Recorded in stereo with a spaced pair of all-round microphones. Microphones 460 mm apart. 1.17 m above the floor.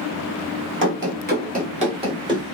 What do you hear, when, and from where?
0.8 s running footsteps: 25° right (ahead or behind), 1.2 m; by 2.5 s 10° right (ahead or behind), 1.6 m